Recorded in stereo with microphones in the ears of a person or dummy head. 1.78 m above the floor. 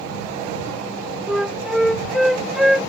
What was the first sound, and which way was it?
A flute, centre (ahead or behind).